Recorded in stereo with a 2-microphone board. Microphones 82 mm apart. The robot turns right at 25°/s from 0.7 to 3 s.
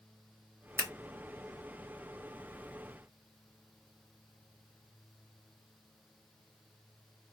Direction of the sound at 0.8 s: 30° right (ahead or behind).